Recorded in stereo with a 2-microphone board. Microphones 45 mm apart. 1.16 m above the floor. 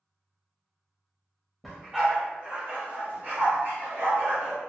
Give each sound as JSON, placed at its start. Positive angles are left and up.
{"t": 1.6, "sound": "a dog barking", "side_deg": 0, "distance_m": 1.1}